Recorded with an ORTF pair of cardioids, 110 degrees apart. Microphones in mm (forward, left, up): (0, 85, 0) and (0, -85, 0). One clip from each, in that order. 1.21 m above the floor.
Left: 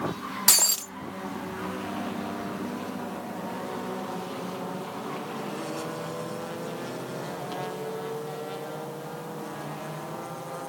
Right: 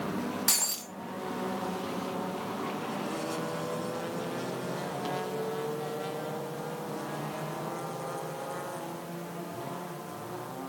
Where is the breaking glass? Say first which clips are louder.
Left 9 dB; 35° left, 0.9 m.